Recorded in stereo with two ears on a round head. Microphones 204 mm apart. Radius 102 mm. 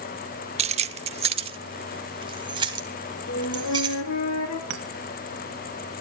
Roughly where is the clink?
Right.